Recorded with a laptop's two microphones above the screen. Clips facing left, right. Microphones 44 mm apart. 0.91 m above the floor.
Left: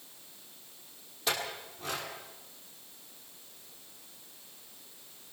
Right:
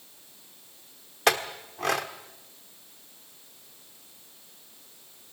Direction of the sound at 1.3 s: 80° right.